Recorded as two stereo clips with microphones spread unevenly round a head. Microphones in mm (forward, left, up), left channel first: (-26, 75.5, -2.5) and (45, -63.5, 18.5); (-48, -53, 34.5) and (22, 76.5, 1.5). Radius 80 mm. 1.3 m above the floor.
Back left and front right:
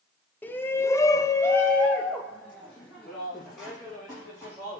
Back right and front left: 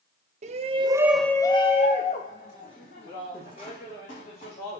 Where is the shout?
45° left, 1.0 m; by 4.8 s 155° right, 4 m.